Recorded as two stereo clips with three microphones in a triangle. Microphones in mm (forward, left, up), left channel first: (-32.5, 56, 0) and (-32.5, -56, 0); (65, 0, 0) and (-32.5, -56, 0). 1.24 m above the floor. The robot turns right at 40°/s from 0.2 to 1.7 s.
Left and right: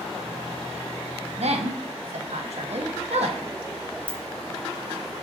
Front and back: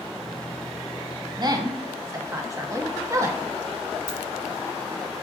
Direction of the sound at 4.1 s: 145° left.